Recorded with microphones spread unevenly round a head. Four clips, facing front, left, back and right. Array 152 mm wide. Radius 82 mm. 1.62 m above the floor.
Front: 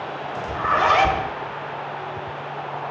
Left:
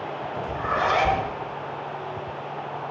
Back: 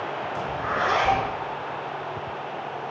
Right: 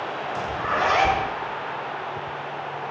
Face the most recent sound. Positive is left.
turn(degrees=5)